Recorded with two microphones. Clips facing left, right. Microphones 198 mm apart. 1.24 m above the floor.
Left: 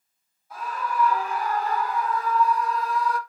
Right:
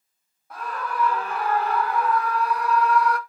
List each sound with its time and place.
0.5 s a scream: 55° right (ahead or behind), 2.5 m; by 3.2 s 60° right (ahead or behind), 0.9 m